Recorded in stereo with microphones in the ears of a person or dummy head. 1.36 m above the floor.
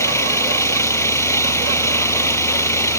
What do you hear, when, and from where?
0.0 s an engine running: 20° left (ahead or behind)